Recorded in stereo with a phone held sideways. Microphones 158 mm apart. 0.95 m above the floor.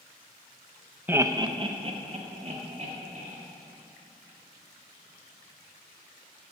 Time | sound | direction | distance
1.1 | laughter | 10° right (ahead or behind) | 0.6 m